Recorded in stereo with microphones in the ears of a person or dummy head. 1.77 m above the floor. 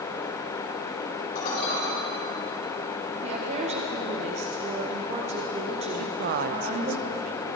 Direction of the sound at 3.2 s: 45° right (ahead or behind).